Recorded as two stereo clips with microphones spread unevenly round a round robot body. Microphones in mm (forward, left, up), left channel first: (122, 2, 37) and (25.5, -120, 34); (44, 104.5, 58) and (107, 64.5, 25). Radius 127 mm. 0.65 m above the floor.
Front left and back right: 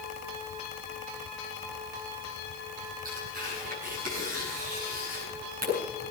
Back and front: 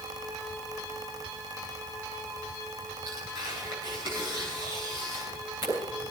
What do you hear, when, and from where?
3.0 s tearing paper: 105° right, 9 m